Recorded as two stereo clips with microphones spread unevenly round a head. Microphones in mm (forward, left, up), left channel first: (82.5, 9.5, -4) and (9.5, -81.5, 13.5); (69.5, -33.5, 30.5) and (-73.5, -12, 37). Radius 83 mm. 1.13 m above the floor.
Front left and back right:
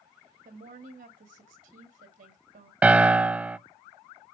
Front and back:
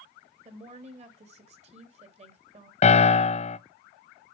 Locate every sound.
0.5 s a woman speaking: 145° right, 2.5 m
2.8 s a piano: 45° right, 0.6 m